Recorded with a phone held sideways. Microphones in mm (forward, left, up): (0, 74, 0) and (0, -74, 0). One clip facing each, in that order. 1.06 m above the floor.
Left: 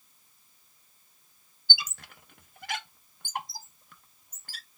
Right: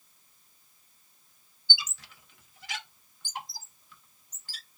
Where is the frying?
I don't hear frying.